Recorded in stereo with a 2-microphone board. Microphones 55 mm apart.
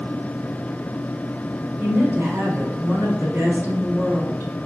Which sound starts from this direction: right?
A woman speaking, at 1.8 s.